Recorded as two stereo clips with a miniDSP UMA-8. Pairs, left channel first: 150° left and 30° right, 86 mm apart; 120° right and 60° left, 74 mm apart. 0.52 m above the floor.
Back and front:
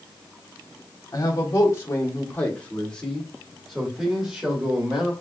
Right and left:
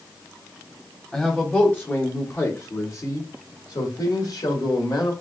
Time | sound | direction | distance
1.1 | a man speaking | 165° left | 1.3 m